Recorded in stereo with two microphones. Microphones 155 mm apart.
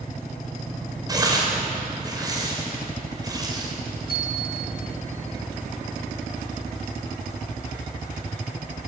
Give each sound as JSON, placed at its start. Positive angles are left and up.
{"t": 1.1, "sound": "tearing paper", "side_deg": -25, "distance_m": 4.5}
{"t": 4.1, "sound": "a bicycle bell", "side_deg": 85, "distance_m": 7.5}